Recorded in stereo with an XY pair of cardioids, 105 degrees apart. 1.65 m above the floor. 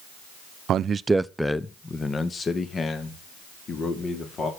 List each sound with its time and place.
0.7 s a man speaking: 65° right, 0.8 m; by 4.5 s 45° left, 4.5 m